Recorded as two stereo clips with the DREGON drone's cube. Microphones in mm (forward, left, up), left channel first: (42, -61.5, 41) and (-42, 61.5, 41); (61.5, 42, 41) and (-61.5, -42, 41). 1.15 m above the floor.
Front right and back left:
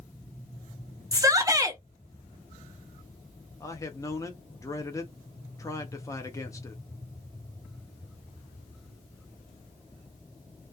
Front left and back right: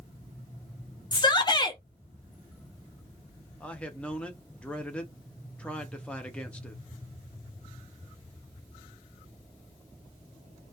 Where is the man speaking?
35° right, 0.6 m.